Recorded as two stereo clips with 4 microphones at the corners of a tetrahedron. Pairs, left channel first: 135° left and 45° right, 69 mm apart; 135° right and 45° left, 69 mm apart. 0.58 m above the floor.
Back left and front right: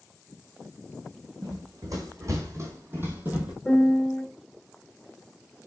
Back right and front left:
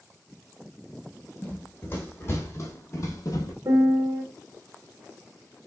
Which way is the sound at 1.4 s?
75° right.